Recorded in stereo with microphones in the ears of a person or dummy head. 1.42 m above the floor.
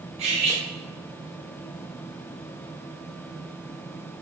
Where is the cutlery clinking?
35° right (ahead or behind), 0.9 m.